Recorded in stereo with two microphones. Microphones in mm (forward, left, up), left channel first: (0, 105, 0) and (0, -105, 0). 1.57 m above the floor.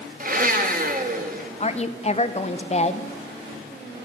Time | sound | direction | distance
0.2 | a blender | 40° right (ahead or behind) | 0.9 m
1.6 | a woman speaking | 30° left (ahead or behind) | 0.6 m